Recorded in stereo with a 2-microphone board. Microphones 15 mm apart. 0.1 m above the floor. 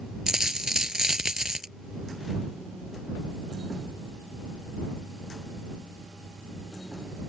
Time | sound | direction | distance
0.3 | a dropped coin | 45° right (ahead or behind) | ?